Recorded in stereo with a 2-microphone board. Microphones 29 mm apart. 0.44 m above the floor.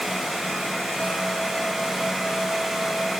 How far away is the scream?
No scream in this recording.